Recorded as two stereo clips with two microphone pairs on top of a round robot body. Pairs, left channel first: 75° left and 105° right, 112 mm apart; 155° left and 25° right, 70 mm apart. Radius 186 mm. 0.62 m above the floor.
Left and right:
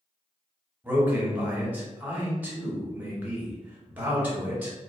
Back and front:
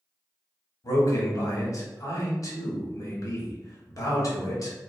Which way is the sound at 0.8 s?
175° right.